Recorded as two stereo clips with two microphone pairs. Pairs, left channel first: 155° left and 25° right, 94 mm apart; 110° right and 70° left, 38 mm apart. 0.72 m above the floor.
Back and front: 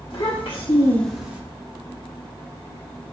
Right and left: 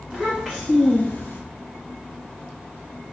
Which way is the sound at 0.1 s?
130° left.